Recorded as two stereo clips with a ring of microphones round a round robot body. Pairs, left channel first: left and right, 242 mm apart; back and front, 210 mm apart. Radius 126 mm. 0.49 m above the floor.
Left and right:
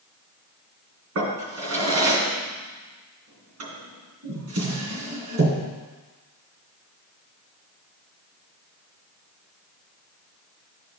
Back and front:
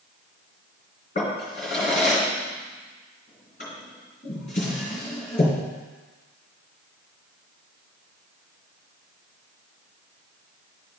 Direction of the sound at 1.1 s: 120° right.